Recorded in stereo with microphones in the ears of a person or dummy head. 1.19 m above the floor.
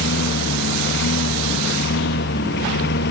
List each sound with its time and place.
0.0 s a lawn mower: 65° left (ahead or behind)